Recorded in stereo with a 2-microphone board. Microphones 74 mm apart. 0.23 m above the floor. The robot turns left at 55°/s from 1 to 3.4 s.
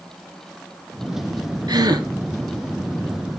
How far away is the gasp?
About 1.5 m.